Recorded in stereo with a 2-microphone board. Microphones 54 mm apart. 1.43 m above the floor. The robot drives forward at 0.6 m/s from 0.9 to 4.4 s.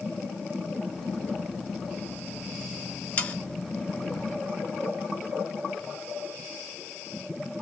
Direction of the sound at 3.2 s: 25° left (ahead or behind).